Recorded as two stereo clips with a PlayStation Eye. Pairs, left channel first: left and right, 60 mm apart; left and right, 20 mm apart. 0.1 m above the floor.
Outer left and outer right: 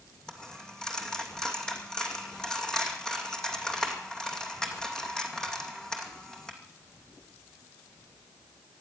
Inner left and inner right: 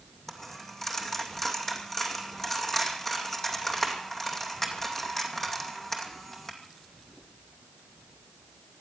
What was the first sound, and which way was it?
A dropped coin, 10° left (ahead or behind).